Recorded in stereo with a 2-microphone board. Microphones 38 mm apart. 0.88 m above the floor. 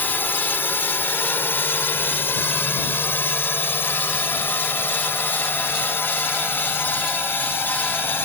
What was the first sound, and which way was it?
A drone, 65° left (ahead or behind).